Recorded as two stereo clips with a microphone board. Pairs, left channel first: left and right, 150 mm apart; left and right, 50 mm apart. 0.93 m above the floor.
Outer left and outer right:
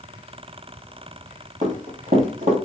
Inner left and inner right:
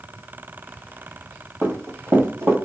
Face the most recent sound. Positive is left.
turn(degrees=-60)  # may be behind; listen again after turning